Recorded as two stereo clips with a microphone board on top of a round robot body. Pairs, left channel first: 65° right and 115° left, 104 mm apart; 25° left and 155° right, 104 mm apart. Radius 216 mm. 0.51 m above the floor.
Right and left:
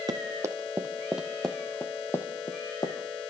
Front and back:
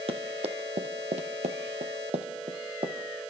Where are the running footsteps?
170° left, 1.8 m; by 3.2 s 110° right, 2 m.